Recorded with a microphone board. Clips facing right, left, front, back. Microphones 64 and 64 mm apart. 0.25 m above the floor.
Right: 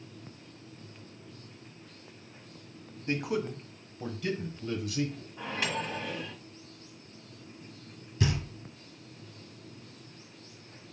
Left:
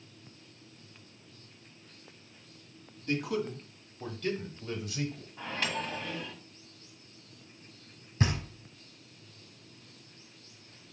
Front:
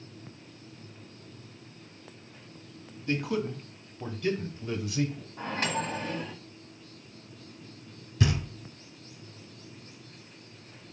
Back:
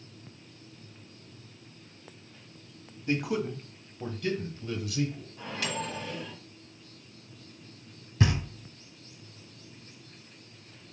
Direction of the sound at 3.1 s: 125° right.